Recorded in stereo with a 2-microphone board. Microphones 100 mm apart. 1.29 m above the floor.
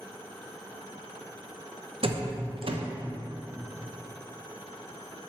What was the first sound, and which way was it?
A door slam, 60° right (ahead or behind).